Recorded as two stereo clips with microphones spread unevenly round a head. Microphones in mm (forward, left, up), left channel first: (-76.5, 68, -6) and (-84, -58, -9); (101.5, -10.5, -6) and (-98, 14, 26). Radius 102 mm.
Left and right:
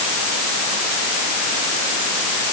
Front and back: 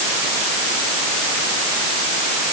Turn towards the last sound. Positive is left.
No sound to turn to.